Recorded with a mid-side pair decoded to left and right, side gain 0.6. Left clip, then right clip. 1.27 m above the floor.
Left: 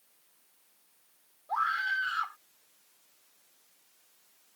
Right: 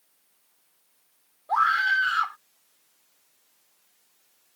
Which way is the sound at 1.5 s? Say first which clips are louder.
Right 8 dB; 40° right.